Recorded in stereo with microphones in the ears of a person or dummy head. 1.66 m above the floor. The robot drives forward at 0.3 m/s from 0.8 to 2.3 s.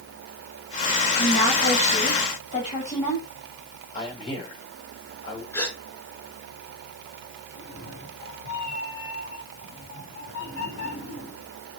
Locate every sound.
1.2 s a woman speaking: 45° left (ahead or behind), 9 m
3.9 s a man speaking: 35° left (ahead or behind), 10 m
5.5 s a gasp: 20° left (ahead or behind), 6.5 m
7.5 s a cat meowing: 65° left (ahead or behind), 4 m